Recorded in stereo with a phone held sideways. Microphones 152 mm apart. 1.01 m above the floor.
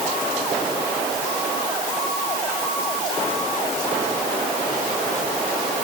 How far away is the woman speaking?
I don't hear a woman speaking.